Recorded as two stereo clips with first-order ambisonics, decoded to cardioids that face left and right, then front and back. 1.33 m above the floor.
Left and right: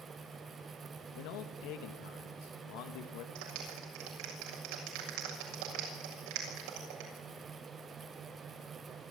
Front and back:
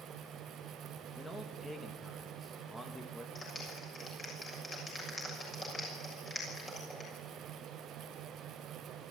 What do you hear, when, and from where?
1.1 s a man speaking: 85° left, 1.5 m
3.4 s a clap: 75° right, 6.5 m